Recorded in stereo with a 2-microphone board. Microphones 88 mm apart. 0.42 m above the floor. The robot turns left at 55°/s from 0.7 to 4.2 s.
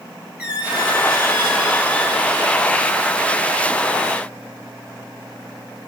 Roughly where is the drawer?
No drawer in this recording.